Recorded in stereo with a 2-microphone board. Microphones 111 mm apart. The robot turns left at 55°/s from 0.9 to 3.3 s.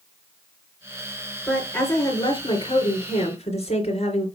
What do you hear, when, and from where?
1.5 s a woman speaking: 175° left, 3 m; by 4.3 s 75° left, 3 m